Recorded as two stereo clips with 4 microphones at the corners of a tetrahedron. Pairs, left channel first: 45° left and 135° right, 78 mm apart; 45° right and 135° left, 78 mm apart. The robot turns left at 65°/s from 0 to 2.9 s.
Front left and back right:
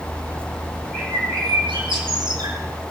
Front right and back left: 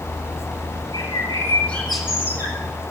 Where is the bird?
70° right, 6.5 m; by 2.6 s straight behind, 6.5 m.